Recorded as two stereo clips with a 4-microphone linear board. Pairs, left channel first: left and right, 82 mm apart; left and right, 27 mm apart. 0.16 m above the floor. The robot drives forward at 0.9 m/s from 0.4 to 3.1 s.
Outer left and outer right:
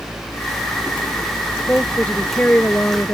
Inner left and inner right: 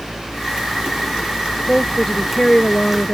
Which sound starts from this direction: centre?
A woman speaking, at 1.7 s.